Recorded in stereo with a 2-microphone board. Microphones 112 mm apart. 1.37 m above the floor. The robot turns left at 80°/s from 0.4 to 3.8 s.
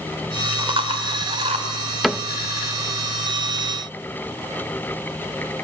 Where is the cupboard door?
Centre (ahead or behind), 0.5 m; by 2.3 s 10° right (ahead or behind), 0.5 m.